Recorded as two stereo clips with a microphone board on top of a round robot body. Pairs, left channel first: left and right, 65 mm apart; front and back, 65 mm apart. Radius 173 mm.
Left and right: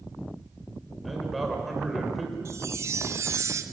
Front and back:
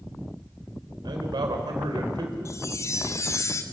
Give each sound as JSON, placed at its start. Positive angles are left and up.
{"t": 1.0, "sound": "a man speaking", "azimuth_deg": 180, "distance_m": 4.5}
{"t": 2.5, "sound": "a chime", "azimuth_deg": -45, "distance_m": 0.9}